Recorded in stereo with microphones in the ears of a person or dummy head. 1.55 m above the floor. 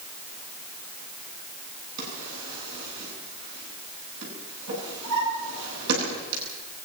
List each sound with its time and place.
2.0 s a drawer: 65° right (ahead or behind), 10 m